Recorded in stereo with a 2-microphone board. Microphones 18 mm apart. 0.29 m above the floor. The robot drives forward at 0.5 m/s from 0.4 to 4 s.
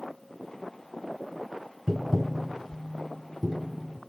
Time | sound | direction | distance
1.9 | tapping | 45° right (ahead or behind) | 0.5 m